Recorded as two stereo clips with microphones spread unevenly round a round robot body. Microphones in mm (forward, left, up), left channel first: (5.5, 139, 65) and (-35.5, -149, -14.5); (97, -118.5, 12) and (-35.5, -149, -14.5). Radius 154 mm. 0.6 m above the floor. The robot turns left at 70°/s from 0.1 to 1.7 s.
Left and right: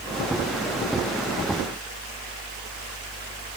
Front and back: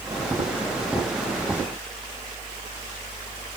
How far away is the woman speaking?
I don't hear a woman speaking.